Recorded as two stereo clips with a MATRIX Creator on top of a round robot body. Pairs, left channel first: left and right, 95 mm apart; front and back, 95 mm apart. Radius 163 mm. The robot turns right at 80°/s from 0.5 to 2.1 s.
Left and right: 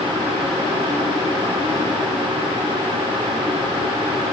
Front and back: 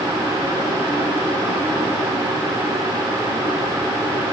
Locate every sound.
Only background noise.